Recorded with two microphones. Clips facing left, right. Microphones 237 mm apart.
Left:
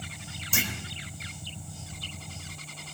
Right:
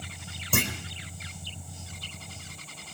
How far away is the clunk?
About 3.5 m.